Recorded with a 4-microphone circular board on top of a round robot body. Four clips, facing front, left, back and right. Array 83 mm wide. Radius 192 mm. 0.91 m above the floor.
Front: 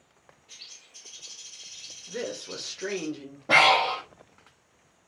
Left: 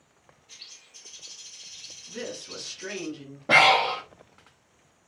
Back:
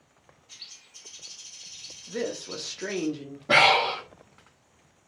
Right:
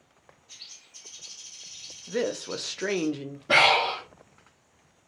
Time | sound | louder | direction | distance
0.5 | a bird | left 2 dB, even | 35° left | 0.9 m
2.1 | a woman speaking | right 9 dB, back 3 dB | 90° right | 0.6 m
3.5 | breathing | left 2 dB, even | 80° left | 1.1 m